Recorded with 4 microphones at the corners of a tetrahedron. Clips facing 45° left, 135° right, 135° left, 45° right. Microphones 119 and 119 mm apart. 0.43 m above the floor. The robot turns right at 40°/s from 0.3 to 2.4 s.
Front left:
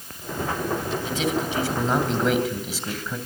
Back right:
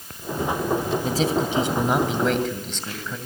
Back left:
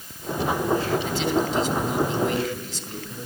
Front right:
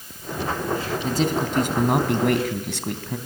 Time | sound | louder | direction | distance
1.0 | a man speaking | back right 1 dB, front right 1 dB | 90° right | 3 m